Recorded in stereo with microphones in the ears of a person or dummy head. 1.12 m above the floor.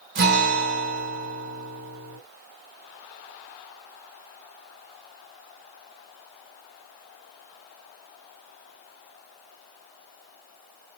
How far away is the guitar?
About 1.8 m.